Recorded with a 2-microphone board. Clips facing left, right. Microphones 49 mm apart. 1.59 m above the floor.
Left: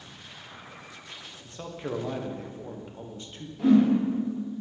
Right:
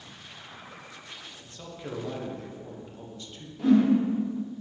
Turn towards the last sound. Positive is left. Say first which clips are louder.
# left 1 dB
turn(degrees=15)  # may be behind; listen again after turning